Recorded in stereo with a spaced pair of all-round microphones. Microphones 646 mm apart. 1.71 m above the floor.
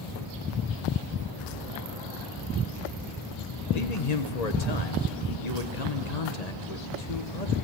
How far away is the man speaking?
About 1.5 m.